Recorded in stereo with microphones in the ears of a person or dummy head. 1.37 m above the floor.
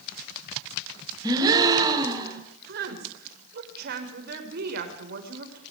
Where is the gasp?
20° right (ahead or behind), 3.5 m.